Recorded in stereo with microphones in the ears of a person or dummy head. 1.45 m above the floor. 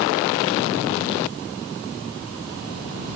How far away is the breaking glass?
I don't hear breaking glass.